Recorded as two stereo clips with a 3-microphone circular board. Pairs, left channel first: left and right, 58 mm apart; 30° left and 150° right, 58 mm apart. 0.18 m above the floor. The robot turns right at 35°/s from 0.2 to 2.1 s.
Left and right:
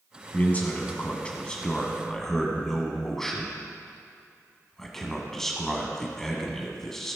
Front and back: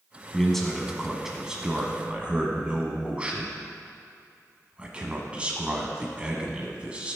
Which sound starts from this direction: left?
A man speaking, at 0.3 s.